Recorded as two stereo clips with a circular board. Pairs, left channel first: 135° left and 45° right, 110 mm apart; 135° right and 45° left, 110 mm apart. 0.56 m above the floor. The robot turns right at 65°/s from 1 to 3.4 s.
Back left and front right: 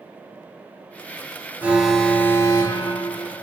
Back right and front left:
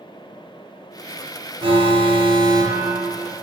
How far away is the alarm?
About 0.7 m.